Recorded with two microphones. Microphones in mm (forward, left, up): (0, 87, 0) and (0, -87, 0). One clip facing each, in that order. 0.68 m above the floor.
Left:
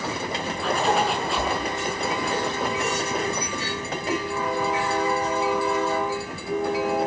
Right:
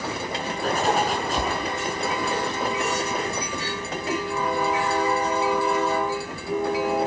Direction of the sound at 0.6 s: 45° right (ahead or behind).